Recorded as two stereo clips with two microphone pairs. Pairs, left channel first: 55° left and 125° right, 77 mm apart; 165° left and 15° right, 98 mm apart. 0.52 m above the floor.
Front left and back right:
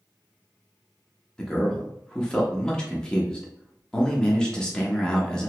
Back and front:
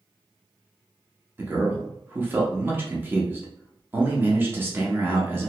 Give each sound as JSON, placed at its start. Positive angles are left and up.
{"t": 1.4, "sound": "a man speaking", "azimuth_deg": -5, "distance_m": 0.7}